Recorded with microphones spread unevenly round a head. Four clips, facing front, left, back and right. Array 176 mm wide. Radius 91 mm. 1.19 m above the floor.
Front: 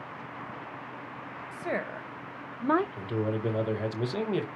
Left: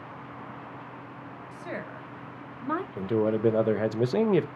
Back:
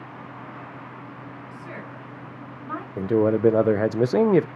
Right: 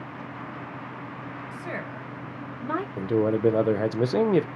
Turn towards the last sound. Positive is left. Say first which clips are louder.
# right 2 dB, back 11 dB
turn(degrees=-170)